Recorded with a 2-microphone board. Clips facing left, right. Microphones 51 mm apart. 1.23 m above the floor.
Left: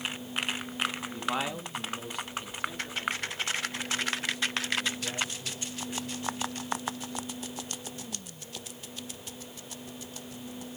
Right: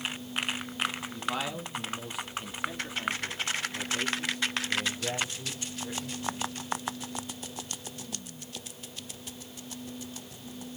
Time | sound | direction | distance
1.0 | a man speaking | 25° left (ahead or behind) | 2.5 m